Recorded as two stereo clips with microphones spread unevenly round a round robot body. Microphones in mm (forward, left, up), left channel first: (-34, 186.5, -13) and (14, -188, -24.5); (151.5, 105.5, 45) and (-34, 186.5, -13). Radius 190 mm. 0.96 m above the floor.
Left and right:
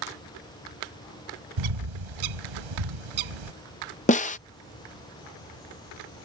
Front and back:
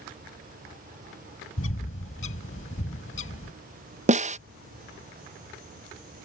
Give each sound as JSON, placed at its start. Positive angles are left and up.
{"t": 1.6, "sound": "a bird", "azimuth_deg": -70}
{"t": 4.1, "sound": "a snare drum", "azimuth_deg": 165}